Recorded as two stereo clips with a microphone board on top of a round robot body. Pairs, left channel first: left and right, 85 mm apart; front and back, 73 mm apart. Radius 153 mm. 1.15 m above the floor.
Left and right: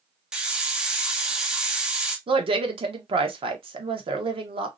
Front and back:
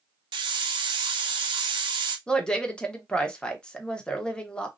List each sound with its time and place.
0.3 s a hiss: 170° right, 0.5 m
2.3 s a woman speaking: 80° right, 1.1 m